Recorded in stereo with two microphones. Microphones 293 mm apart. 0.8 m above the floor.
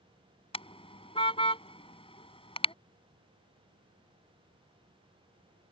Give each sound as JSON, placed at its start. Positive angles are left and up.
{"t": 0.5, "sound": "a car horn", "side_deg": 20}